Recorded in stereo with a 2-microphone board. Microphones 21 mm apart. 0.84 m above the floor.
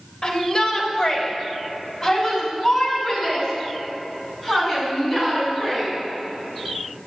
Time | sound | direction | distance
0.2 | a shout | 35° left (ahead or behind) | 3.5 m